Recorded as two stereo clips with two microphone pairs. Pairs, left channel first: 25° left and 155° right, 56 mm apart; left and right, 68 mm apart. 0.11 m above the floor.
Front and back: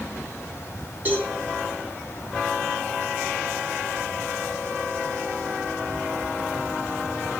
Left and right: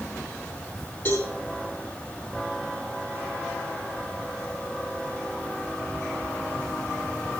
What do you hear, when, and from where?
1.1 s a cowbell: 145° left, 6.5 m